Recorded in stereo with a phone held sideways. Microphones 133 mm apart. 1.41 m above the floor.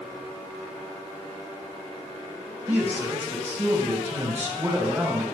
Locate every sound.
2.7 s a man speaking: 15° right (ahead or behind), 2 m